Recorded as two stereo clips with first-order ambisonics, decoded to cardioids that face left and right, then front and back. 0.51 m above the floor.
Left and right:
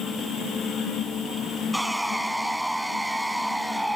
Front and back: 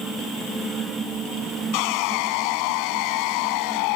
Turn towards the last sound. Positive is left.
turn(degrees=0)